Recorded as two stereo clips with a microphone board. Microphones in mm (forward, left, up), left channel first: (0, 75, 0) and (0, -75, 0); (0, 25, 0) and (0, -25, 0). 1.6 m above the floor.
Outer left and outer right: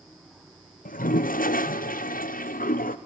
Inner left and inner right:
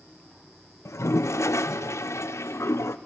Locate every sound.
0.8 s a toilet flushing: 70° left (ahead or behind), 0.6 m